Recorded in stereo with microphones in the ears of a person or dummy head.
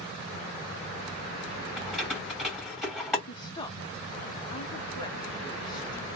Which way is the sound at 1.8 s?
5° right (ahead or behind).